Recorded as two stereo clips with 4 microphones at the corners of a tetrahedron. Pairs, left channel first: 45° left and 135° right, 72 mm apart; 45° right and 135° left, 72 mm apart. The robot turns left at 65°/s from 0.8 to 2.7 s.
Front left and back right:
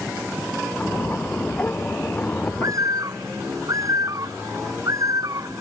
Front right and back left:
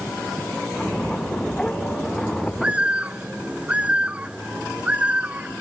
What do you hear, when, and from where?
2.6 s a bird: 150° right; by 5.6 s 155° right